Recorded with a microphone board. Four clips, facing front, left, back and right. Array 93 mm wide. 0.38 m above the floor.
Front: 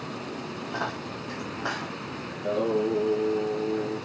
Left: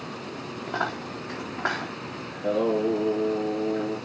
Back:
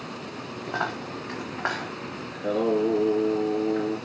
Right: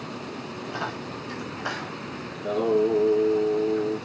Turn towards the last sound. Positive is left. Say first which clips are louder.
# right 1 dB, back 2 dB
turn(degrees=155)